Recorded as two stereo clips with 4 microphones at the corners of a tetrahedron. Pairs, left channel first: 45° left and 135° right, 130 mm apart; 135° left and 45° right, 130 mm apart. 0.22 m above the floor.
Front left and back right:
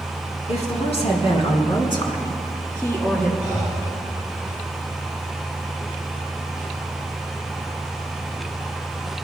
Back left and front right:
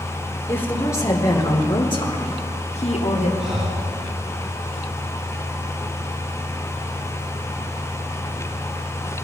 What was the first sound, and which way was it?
A woman speaking, 65° left.